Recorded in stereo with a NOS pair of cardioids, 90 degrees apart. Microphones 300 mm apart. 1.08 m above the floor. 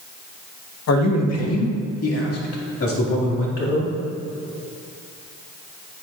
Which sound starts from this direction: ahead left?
A man speaking, at 0.9 s.